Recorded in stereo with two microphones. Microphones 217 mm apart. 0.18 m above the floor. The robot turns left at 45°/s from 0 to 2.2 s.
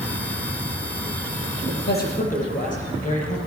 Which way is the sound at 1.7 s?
55° left (ahead or behind).